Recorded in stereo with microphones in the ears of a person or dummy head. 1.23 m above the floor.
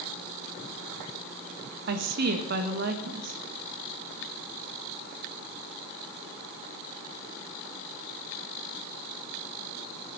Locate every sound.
1.9 s a woman speaking: 65° right (ahead or behind), 1.8 m